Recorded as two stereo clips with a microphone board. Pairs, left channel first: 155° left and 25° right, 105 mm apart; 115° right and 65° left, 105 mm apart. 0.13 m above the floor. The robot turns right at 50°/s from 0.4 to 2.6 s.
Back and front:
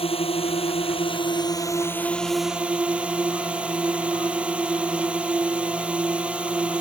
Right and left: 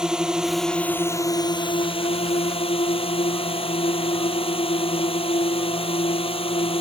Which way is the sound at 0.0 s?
150° left.